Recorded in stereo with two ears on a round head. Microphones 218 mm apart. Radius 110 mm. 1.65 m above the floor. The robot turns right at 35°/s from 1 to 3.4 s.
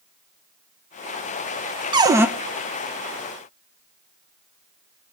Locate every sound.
1.9 s a cupboard door: 20° right (ahead or behind), 0.6 m; by 2.3 s 10° right (ahead or behind), 0.6 m